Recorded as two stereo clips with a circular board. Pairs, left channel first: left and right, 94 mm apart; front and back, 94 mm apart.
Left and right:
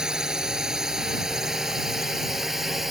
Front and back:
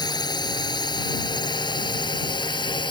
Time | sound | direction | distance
0.0 | a drone | 10° right | ?